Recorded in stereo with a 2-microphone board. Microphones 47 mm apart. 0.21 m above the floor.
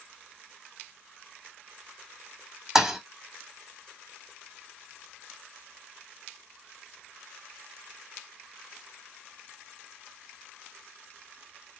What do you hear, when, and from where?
2.8 s a thud: 10° right (ahead or behind), 0.6 m